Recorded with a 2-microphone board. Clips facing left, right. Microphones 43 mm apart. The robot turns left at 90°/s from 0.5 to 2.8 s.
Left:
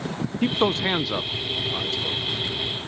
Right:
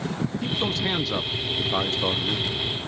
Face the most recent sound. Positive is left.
turn(degrees=-140)